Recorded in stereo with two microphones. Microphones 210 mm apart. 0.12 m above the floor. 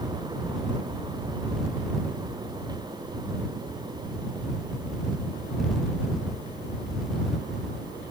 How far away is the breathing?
I don't hear breathing.